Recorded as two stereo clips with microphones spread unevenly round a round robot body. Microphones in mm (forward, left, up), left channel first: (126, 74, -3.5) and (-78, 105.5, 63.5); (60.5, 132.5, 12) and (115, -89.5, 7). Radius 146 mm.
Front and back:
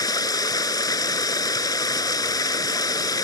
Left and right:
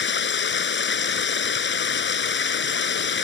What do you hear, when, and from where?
0.0 s running water: 65° left